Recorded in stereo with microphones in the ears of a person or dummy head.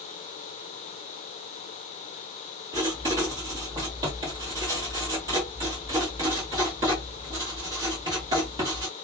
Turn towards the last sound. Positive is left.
turn(degrees=-25)  # may be behind; listen again after turning